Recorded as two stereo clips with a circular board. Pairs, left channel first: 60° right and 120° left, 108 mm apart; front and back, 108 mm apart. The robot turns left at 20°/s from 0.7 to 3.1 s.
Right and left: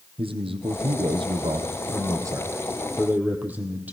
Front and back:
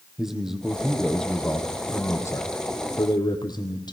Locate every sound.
0.2 s a man speaking: 95° left, 3 m; by 3.9 s 45° left, 3 m